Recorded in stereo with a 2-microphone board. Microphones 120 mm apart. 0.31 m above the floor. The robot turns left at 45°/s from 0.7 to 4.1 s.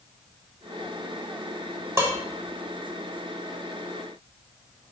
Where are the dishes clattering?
25° right (ahead or behind), 0.7 m; by 2.2 s 20° right (ahead or behind), 0.7 m.